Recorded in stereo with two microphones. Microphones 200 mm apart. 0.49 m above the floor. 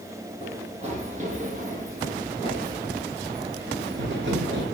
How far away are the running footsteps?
About 6 m.